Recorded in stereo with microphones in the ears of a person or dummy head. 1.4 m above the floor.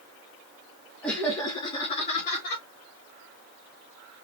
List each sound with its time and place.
1.0 s laughter: 5° left (ahead or behind), 1.2 m; by 2.6 s 45° left (ahead or behind), 1.8 m